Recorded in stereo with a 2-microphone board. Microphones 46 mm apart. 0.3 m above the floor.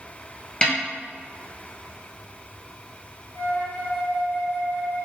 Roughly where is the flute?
Left.